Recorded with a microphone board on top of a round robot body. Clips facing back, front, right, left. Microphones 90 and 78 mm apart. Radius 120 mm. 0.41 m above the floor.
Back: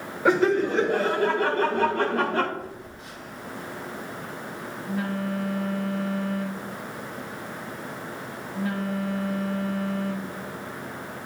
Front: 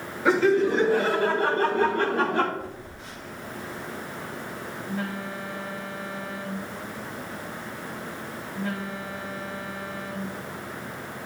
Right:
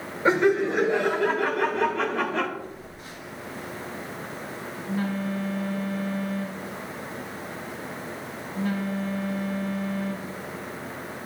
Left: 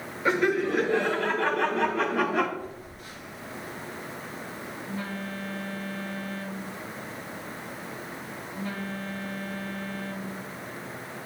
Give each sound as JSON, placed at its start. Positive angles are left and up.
{"t": 0.2, "sound": "laughter", "azimuth_deg": -150, "distance_m": 2.5}
{"t": 2.6, "sound": "a phone buzzing", "azimuth_deg": -150, "distance_m": 4.5}